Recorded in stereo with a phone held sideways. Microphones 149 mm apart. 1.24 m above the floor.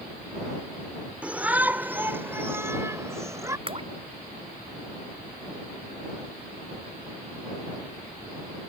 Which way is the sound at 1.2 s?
10° right (ahead or behind).